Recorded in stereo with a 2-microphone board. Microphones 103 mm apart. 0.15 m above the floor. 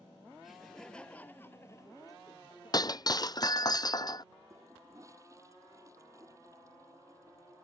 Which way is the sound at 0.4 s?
5° right (ahead or behind).